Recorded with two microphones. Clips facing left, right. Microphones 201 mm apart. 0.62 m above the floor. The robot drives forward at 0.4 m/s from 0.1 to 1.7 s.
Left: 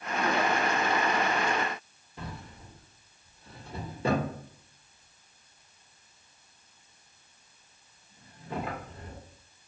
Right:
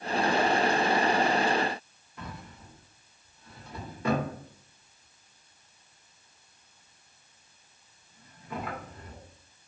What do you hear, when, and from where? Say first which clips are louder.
2.2 s a drawer: left 1 dB; 25° left (ahead or behind), 0.8 m